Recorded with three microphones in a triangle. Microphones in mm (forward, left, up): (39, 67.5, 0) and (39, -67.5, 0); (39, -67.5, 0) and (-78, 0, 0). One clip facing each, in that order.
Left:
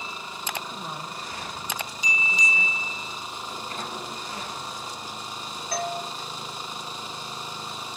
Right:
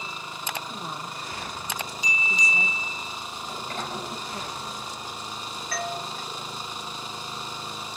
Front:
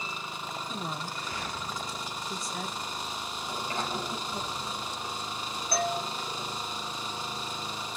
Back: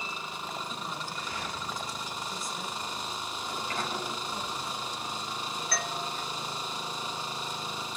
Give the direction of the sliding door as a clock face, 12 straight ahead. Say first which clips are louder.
Right 2 dB, front 1 dB; 3 o'clock.